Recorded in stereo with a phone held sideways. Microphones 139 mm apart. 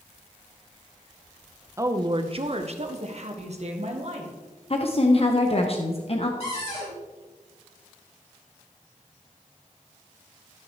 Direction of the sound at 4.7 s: 45° left (ahead or behind).